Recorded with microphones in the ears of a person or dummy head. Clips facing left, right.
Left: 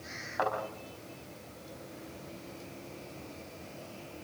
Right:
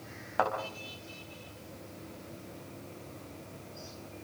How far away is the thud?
About 5 m.